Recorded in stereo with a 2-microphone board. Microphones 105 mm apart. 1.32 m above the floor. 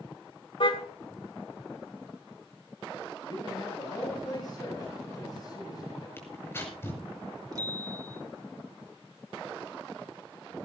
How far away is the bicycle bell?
About 3.5 m.